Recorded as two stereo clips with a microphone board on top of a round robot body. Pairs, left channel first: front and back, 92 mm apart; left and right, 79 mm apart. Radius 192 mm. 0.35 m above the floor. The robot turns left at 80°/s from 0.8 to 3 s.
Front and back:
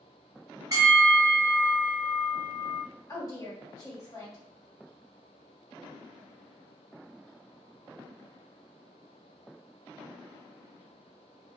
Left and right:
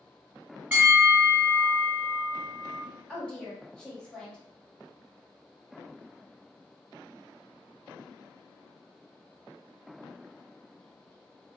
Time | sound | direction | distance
0.7 | a bell | 150° right | 1.9 m
3.1 | a woman speaking | 15° left | 1.6 m